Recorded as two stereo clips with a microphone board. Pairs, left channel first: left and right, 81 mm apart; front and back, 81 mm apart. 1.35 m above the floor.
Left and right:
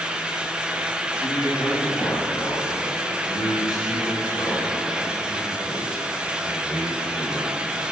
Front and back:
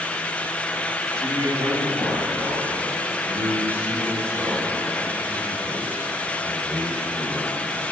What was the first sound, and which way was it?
A man speaking, 130° left.